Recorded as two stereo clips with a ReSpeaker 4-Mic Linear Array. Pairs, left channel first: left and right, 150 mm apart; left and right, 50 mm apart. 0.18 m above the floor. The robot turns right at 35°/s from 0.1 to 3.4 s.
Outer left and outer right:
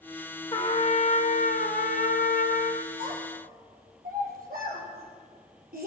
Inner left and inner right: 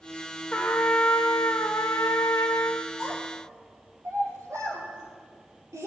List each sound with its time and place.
0.5 s a trumpet: 35° left, 1.9 m; by 2.9 s 115° left, 1.9 m
3.0 s a child speaking: 80° right, 4 m; by 5.9 s 75° right (ahead or behind), 4 m